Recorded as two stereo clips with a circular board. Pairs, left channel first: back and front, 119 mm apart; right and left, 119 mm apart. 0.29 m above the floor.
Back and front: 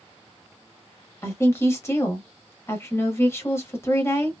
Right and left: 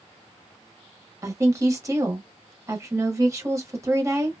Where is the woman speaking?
130° left, 1.0 m.